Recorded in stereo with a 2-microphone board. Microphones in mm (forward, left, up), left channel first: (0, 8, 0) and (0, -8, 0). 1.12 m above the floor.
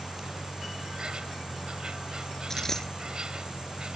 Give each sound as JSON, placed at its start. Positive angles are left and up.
{"t": 0.0, "sound": "an insect", "side_deg": -50}
{"t": 2.5, "sound": "a dropped coin", "side_deg": 25}